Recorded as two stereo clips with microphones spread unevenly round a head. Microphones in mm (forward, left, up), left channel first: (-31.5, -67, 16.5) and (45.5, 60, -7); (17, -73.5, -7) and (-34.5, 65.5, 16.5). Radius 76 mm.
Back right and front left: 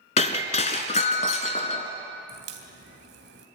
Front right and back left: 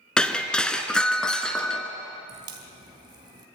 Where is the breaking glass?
160° right, 1.7 m.